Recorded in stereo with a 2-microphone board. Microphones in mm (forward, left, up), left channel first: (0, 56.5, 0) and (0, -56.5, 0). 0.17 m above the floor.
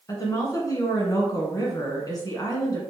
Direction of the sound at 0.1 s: 35° left (ahead or behind).